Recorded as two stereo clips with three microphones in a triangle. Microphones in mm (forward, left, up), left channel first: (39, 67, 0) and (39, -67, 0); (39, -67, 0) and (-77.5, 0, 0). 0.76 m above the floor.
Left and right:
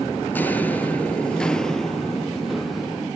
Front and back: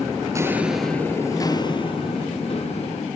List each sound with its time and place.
0.3 s footsteps: 145° left, 0.7 m; by 3.1 s straight ahead, 1.8 m